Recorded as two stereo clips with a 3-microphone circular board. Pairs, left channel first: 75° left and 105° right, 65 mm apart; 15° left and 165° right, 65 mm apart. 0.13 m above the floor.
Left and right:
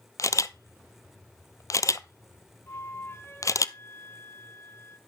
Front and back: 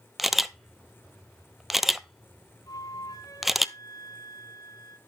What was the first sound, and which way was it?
A camera shutter, 105° left.